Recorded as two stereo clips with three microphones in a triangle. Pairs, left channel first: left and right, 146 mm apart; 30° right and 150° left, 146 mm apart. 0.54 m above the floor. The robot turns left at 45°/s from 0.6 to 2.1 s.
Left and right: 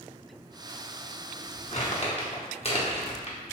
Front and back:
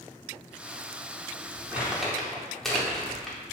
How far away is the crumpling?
About 0.6 m.